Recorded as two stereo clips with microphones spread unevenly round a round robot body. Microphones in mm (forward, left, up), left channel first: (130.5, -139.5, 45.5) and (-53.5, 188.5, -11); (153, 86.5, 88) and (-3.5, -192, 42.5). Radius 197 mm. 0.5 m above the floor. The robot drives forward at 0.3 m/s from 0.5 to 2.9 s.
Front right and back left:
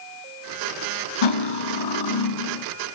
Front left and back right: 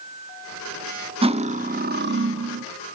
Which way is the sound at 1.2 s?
55° right.